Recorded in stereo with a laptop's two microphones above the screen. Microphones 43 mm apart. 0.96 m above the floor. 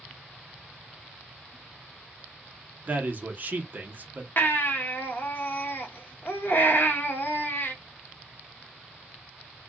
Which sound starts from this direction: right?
A man speaking, at 2.9 s.